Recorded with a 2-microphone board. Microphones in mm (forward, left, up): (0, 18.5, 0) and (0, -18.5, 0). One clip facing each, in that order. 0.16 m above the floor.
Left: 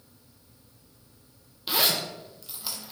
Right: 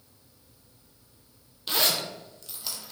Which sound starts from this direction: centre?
A zipper, at 1.7 s.